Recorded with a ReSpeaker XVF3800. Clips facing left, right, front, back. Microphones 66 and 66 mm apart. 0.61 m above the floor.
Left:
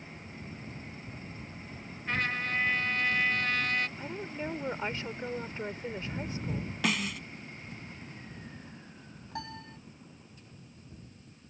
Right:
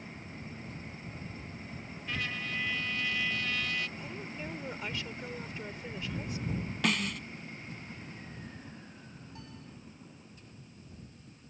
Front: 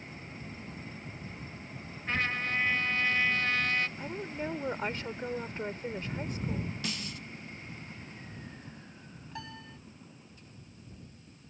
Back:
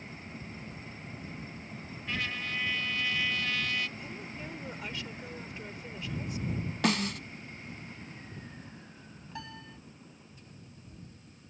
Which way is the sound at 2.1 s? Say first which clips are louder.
Left 6 dB, front 4 dB; 45° left.